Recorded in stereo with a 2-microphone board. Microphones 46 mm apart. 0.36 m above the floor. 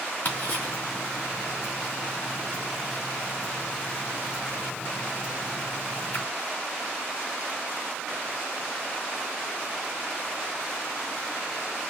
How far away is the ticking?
About 3 m.